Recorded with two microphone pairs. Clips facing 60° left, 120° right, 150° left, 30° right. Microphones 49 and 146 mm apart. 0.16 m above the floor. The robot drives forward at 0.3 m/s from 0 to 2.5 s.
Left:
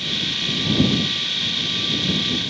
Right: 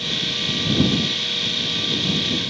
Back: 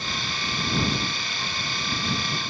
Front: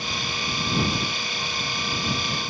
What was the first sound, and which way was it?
Only background noise.